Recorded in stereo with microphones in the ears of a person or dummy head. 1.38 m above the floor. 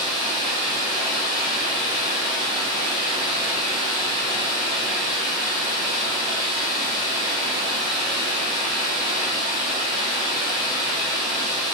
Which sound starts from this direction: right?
Running water, at 0.0 s.